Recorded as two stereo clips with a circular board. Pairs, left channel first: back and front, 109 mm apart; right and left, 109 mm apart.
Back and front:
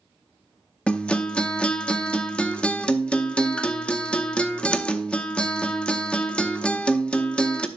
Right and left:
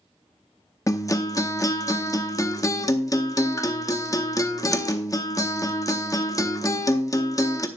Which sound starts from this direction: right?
A guitar, at 0.9 s.